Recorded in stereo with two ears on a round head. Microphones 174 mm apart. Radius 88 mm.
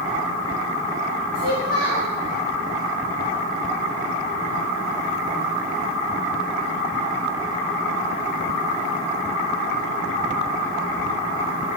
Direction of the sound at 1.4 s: 50° right (ahead or behind).